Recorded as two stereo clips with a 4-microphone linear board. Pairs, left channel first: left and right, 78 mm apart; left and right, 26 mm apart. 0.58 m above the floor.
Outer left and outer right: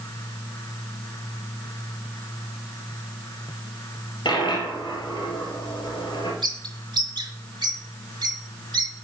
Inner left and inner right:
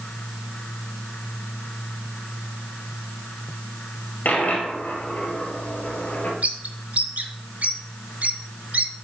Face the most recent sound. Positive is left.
turn(degrees=-70)  # may be behind; listen again after turning